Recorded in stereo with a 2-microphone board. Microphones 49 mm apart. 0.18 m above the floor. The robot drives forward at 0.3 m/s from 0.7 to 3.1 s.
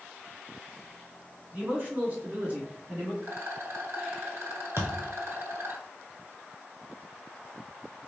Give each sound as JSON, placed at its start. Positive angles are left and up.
{"t": 1.5, "sound": "a man speaking", "side_deg": -35, "distance_m": 1.6}
{"t": 3.2, "sound": "a rattle", "side_deg": -60, "distance_m": 0.7}
{"t": 4.8, "sound": "a thud", "side_deg": -65, "distance_m": 0.8}